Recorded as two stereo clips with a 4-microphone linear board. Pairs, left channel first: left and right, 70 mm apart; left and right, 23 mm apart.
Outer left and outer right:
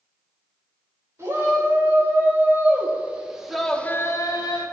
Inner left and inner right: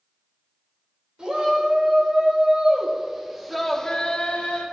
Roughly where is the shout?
Right.